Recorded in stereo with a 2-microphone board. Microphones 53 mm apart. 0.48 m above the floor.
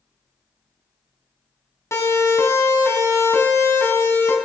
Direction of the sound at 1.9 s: 70° left (ahead or behind).